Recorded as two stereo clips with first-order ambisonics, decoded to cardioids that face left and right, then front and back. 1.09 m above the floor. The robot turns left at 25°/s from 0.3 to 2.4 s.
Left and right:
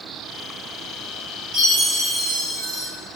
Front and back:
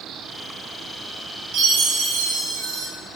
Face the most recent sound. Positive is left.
turn(degrees=180)